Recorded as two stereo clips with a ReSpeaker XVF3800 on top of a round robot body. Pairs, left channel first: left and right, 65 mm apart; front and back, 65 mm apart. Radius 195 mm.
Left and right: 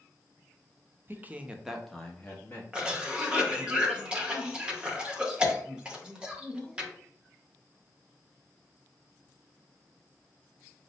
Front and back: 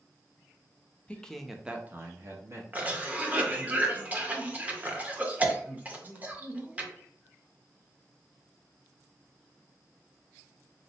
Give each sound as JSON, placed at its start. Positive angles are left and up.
{"t": 1.1, "sound": "a man speaking", "azimuth_deg": -60, "distance_m": 0.7}
{"t": 2.7, "sound": "a cough", "azimuth_deg": -150, "distance_m": 1.0}